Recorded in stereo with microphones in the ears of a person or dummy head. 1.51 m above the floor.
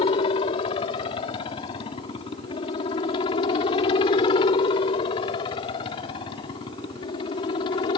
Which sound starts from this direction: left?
A helicopter, at 0.0 s.